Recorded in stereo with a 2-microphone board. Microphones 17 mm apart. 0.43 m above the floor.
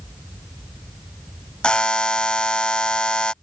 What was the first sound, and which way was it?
A buzzer, 65° left (ahead or behind).